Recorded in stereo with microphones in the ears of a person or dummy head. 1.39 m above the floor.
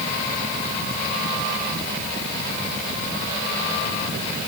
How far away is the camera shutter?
I don't hear a camera shutter.